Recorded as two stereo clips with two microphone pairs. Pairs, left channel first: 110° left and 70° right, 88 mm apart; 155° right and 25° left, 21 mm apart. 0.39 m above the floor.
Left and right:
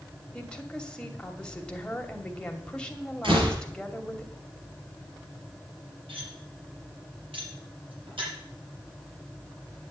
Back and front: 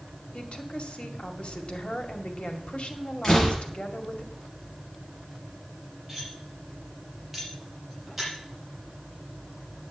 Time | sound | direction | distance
0.3 | a woman speaking | 170° right | 2 m
3.2 | a door slam | 80° right | 5 m
6.1 | cutlery clinking | 55° right | 7.5 m